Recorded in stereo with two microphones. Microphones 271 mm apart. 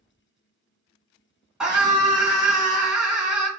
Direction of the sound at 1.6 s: 5° right (ahead or behind).